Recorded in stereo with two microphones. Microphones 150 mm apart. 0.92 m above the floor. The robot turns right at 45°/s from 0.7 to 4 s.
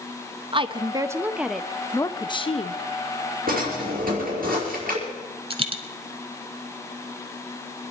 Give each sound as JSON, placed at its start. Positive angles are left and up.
{"t": 0.5, "sound": "a woman speaking", "azimuth_deg": -40, "distance_m": 0.7}
{"t": 3.5, "sound": "a drawer", "side_deg": -80, "distance_m": 5.0}
{"t": 5.5, "sound": "a dropped coin", "side_deg": -35, "distance_m": 1.0}